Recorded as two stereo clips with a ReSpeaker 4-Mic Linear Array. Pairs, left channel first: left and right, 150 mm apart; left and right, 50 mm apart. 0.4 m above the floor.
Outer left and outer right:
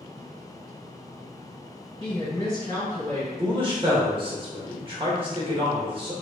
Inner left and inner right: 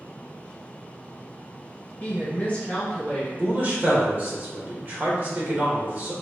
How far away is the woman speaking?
About 1.7 m.